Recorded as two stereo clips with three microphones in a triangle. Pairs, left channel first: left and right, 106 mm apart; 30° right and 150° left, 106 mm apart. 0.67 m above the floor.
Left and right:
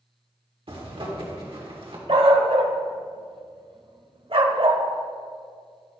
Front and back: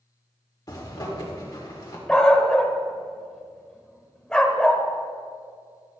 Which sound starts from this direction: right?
A zipper, at 0.7 s.